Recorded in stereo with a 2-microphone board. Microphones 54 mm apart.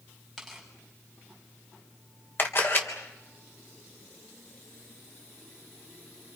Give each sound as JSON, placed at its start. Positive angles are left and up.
{"t": 0.4, "sound": "tearing paper", "side_deg": 5, "distance_m": 6.5}
{"t": 2.4, "sound": "a camera shutter", "side_deg": 40, "distance_m": 3.5}